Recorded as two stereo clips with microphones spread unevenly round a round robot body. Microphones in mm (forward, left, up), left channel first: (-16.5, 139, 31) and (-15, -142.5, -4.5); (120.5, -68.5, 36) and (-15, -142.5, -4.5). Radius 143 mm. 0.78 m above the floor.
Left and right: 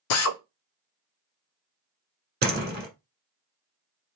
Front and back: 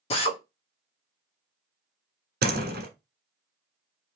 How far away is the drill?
About 0.6 m.